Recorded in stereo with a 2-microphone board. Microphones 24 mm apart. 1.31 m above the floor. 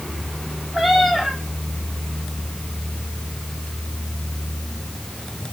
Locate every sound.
0.7 s a cat meowing: 15° right (ahead or behind), 5 m